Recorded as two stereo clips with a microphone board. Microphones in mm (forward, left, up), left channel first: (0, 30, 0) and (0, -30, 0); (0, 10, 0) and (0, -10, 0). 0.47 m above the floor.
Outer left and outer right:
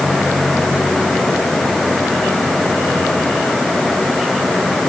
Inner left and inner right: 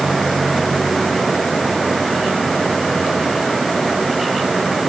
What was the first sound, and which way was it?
Only background noise.